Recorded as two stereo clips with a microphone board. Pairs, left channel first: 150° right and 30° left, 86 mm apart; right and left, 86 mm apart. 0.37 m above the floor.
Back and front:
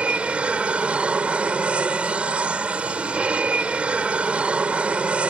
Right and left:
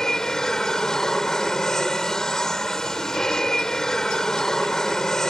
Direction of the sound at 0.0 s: 15° right.